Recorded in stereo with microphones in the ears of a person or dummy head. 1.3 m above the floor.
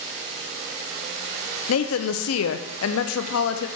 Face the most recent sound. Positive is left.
turn(degrees=75)  # may be behind; listen again after turning